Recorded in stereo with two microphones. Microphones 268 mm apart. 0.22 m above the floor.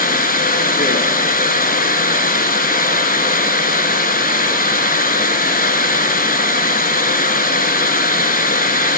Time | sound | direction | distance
0.0 | running water | 30° left (ahead or behind) | 1.4 m